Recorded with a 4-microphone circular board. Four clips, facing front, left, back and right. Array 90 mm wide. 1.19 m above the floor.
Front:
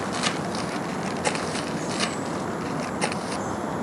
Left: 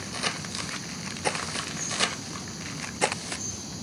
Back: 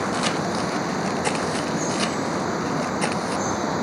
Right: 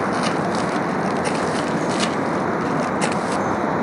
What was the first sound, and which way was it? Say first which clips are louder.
Running water: right 15 dB, back 4 dB; 105° right.